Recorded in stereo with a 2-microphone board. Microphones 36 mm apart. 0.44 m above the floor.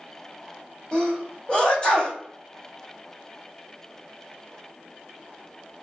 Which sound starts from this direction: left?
A sneeze, at 0.9 s.